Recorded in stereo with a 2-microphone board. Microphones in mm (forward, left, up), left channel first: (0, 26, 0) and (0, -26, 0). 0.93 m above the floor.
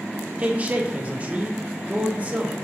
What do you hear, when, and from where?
0.4 s a man speaking: 25° right (ahead or behind), 0.6 m